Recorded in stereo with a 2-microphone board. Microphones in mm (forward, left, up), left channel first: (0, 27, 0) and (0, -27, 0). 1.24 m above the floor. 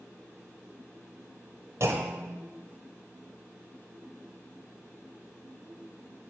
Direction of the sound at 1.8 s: 55° right (ahead or behind).